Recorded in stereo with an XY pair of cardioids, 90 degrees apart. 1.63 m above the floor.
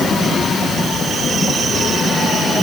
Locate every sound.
Only background noise.